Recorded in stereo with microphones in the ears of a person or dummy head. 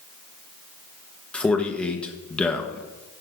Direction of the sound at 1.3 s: 10° left (ahead or behind).